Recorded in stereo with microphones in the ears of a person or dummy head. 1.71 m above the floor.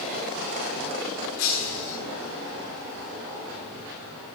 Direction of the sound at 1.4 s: 65° left (ahead or behind).